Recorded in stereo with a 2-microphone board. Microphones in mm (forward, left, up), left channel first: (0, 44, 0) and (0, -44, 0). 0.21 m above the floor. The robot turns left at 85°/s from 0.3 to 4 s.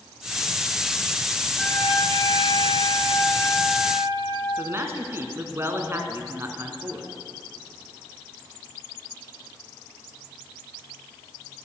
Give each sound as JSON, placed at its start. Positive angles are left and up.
{"t": 1.6, "sound": "a trumpet", "azimuth_deg": 180, "distance_m": 3.0}
{"t": 4.6, "sound": "a man speaking", "side_deg": -30, "distance_m": 1.9}